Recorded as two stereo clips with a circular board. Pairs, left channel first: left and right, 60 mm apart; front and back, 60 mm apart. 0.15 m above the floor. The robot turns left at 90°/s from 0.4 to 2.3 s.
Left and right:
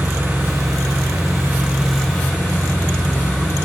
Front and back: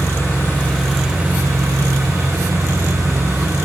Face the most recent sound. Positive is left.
turn(degrees=145)